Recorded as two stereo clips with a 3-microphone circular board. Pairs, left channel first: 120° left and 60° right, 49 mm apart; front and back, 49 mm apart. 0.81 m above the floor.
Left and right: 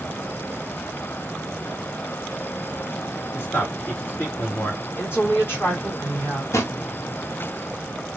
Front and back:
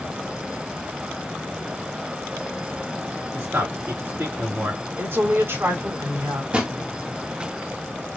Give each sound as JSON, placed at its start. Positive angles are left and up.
{"t": 3.3, "sound": "a man speaking", "azimuth_deg": 165, "distance_m": 1.8}
{"t": 5.0, "sound": "a woman speaking", "azimuth_deg": 155, "distance_m": 2.5}
{"t": 6.5, "sound": "a drawer", "azimuth_deg": 115, "distance_m": 1.0}